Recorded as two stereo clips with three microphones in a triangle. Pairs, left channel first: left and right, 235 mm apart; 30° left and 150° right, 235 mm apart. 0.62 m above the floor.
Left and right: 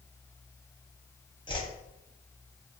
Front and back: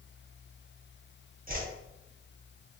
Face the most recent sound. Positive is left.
turn(degrees=165)